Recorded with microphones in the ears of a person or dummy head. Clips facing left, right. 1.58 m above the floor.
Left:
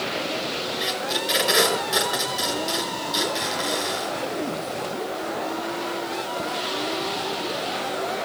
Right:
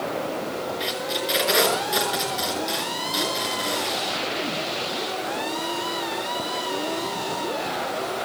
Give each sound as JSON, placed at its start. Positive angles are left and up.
{"t": 0.8, "sound": "tape being pulled", "side_deg": 0, "distance_m": 5.5}